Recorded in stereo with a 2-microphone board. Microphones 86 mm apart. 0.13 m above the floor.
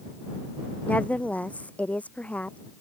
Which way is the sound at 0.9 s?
15° left (ahead or behind).